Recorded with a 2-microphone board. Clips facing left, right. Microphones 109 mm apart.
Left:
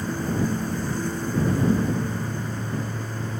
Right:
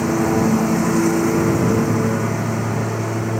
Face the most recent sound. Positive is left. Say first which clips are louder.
# right 9 dB
turn(degrees=-85)